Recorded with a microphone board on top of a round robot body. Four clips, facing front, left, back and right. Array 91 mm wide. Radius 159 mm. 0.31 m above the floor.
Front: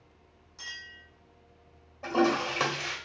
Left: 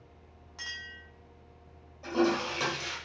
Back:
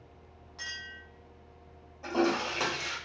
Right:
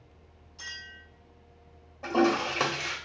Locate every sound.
0.6 s a clink: 115° left, 1.9 m
2.0 s a toilet flushing: 65° right, 1.7 m